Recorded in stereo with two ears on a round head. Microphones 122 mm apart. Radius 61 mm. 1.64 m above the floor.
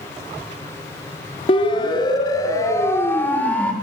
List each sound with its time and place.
1.5 s a siren: 40° left (ahead or behind), 4 m; by 3.7 s 10° left (ahead or behind), 4.5 m